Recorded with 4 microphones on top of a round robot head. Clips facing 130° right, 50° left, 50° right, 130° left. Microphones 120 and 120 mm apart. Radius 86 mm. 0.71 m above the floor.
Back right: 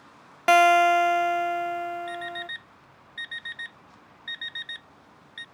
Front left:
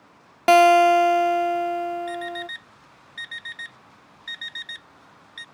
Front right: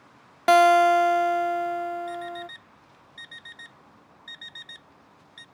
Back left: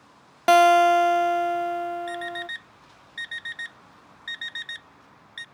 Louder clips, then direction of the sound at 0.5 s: Front left 4 dB, back left 1 dB; 45° left.